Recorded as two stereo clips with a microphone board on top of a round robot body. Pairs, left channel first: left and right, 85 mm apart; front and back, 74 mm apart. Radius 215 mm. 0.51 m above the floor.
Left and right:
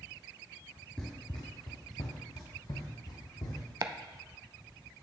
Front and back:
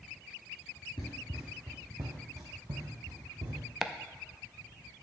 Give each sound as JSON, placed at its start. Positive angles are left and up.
{"t": 1.0, "sound": "running footsteps", "azimuth_deg": 15, "distance_m": 0.5}
{"t": 3.8, "sound": "chopping", "azimuth_deg": -100, "distance_m": 0.8}